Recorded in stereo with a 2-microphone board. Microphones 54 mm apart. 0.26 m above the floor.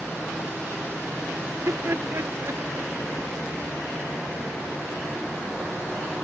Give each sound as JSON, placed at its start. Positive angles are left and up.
{"t": 1.5, "sound": "laughter", "side_deg": -60}